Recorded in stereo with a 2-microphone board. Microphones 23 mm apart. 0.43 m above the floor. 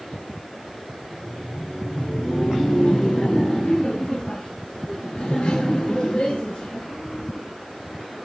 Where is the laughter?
40° left (ahead or behind), 2 m; by 7.4 s 75° left (ahead or behind), 5 m.